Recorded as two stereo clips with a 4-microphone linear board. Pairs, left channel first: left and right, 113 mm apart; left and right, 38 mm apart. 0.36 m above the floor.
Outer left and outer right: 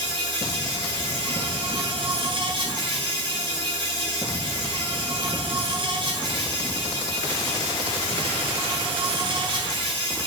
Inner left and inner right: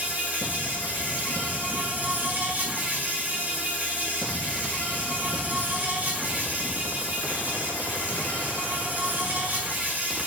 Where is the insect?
50° right (ahead or behind), 5.5 m.